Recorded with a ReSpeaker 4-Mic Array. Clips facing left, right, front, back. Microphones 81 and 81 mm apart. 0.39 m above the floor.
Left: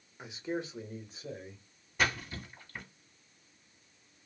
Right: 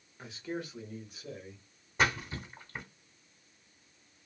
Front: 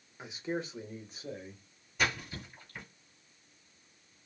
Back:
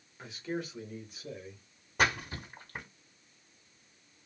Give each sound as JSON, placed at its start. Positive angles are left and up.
{"t": 0.2, "sound": "a man speaking", "azimuth_deg": 45, "distance_m": 0.8}
{"t": 2.0, "sound": "a splash", "azimuth_deg": -150, "distance_m": 1.3}